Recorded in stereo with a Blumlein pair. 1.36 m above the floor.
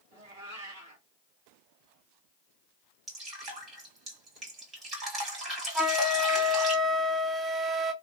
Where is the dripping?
25° right, 1.8 m.